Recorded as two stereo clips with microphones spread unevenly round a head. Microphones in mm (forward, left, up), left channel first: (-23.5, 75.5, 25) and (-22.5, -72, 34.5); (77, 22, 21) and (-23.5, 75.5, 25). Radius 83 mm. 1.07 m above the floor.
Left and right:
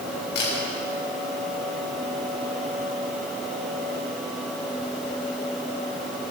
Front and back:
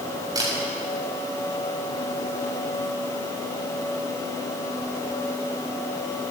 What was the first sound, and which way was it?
A camera shutter, 100° left.